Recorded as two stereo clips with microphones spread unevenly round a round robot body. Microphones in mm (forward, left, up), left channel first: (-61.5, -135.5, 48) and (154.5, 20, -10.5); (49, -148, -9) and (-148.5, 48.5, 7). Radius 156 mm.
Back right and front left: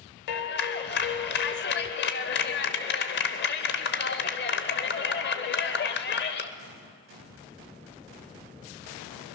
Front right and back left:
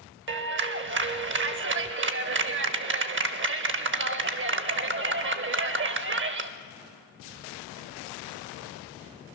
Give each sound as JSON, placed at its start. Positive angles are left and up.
{"t": 0.3, "sound": "a clap", "azimuth_deg": 165, "distance_m": 1.0}